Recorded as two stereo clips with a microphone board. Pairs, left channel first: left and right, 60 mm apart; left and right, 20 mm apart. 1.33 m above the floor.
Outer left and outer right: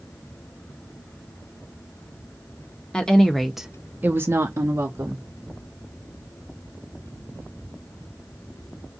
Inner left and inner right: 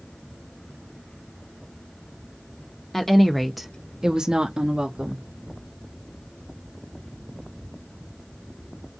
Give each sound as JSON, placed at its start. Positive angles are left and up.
{"t": 2.9, "sound": "a woman speaking", "side_deg": 15, "distance_m": 1.1}